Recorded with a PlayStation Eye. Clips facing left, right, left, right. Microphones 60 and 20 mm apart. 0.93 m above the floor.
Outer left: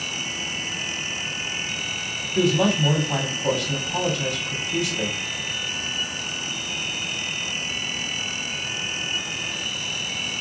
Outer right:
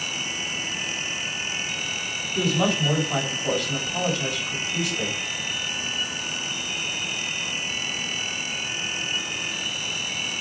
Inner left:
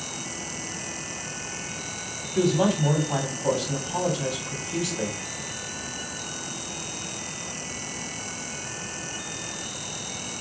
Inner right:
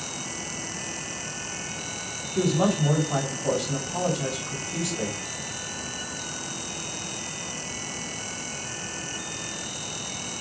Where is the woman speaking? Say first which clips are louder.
Outer left 3 dB, inner left 1 dB; 85° left, 3 m.